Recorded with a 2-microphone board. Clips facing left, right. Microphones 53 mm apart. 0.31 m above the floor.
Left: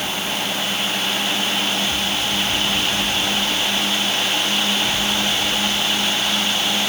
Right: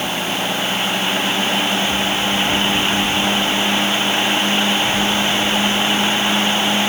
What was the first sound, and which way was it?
Only background noise.